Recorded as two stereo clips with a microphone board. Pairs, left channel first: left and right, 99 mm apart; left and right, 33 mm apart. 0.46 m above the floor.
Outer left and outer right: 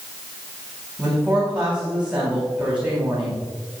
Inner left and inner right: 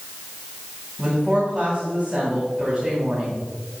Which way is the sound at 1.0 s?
10° right (ahead or behind).